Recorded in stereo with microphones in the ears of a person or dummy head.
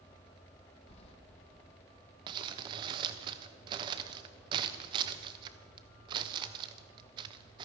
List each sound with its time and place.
0.9 s keys jangling: 35° left (ahead or behind), 1.3 m
2.3 s crumpling: 30° right (ahead or behind), 0.7 m